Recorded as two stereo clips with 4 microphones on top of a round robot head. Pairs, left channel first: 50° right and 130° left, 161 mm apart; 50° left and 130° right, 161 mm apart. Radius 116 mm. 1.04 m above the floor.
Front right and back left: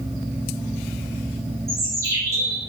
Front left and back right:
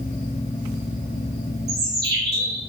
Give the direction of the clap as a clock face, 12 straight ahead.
No clap in this recording.